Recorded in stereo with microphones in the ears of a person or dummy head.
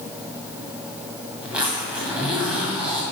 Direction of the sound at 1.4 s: 5° right (ahead or behind).